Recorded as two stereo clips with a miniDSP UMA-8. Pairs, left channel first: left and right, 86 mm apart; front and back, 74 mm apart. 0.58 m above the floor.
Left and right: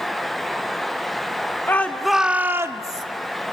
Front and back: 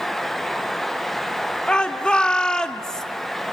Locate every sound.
1.7 s a shout: 65° left, 0.8 m; by 3.0 s 80° right, 1.1 m